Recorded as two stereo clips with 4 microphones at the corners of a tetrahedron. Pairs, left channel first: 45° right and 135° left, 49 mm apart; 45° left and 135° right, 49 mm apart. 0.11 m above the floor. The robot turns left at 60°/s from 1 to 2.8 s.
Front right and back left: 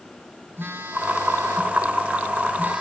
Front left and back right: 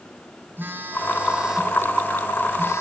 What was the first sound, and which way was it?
A phone buzzing, 175° left.